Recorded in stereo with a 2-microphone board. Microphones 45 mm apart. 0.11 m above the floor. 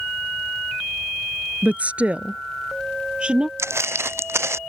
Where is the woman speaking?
35° right (ahead or behind); by 3.5 s 20° right (ahead or behind).